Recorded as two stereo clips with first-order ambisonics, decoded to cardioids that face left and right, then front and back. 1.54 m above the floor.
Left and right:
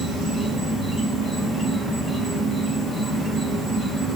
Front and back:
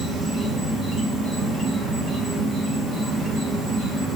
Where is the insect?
145° right, 0.8 m.